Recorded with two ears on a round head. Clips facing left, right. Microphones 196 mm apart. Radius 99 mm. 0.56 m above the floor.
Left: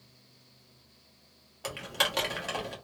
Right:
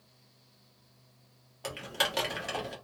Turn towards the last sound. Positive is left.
turn(degrees=0)  # may be behind; listen again after turning